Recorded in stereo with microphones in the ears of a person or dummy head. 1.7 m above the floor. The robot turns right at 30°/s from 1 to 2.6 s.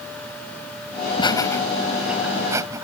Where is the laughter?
20° left (ahead or behind); by 2.9 s 20° right (ahead or behind).